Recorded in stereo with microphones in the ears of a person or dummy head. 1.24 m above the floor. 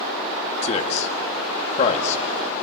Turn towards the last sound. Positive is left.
turn(degrees=40)  # may be behind; listen again after turning